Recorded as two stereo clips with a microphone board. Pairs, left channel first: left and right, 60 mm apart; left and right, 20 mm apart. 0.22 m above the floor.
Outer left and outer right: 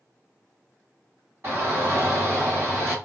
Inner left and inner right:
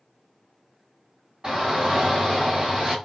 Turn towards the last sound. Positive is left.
turn(degrees=-40)  # may be behind; listen again after turning